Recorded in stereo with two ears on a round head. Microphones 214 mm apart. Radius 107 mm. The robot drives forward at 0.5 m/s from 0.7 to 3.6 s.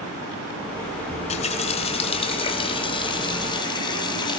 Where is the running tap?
30° left (ahead or behind), 2 m; by 4.4 s 20° left (ahead or behind), 3.5 m.